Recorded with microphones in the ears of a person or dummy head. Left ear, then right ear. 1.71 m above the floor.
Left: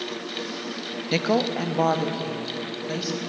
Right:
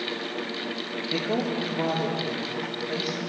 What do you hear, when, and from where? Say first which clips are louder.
1.1 s a woman speaking: left 5 dB; 65° left (ahead or behind), 0.6 m; by 3.2 s 80° left, 2.5 m